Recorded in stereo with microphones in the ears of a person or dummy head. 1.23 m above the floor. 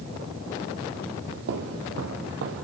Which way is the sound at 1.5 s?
60° right (ahead or behind).